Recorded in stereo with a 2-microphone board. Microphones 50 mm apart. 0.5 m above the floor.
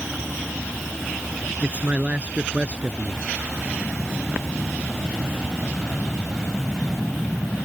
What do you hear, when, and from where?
1.6 s a man speaking: 25° right (ahead or behind)